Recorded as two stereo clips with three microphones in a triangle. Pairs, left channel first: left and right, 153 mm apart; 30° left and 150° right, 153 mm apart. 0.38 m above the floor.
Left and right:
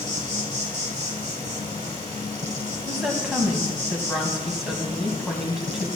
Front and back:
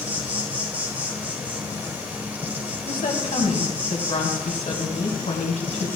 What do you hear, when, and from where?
0.0 s an insect: 75° right, 1.4 m
2.9 s a woman speaking: 5° right, 2.5 m